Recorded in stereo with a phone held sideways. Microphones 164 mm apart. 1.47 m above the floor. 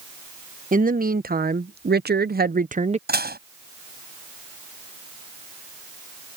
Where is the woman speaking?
60° right (ahead or behind); by 3.0 s 40° right (ahead or behind).